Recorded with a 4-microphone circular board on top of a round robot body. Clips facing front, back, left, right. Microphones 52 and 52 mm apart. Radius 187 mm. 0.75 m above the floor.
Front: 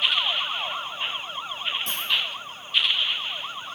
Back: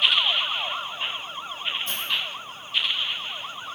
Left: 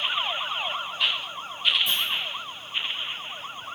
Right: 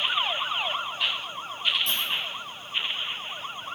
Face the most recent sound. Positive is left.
turn(degrees=15)